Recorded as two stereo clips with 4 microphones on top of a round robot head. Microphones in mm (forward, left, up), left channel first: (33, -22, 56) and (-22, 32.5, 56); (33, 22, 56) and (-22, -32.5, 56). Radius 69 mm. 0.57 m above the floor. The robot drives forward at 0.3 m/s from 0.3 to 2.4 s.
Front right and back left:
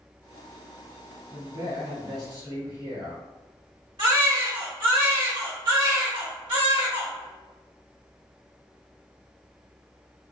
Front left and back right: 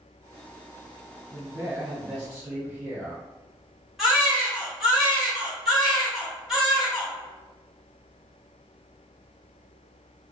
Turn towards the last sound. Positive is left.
turn(degrees=135)